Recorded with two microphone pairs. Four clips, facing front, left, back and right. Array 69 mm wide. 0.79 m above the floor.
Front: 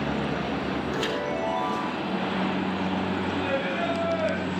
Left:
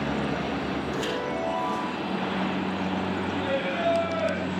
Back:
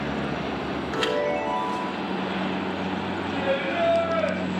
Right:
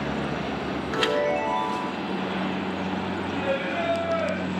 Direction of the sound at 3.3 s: 175° right.